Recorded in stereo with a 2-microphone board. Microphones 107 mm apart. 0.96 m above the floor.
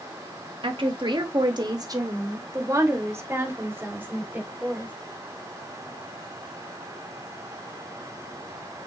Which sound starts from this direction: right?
A woman speaking, at 0.6 s.